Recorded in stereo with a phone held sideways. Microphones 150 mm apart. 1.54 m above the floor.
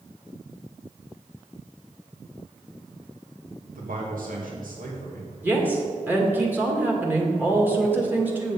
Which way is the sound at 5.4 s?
15° right (ahead or behind).